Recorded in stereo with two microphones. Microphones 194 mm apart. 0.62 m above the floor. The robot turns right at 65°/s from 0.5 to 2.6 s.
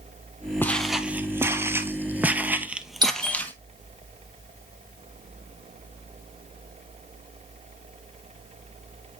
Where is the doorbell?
25° right (ahead or behind), 1.6 m.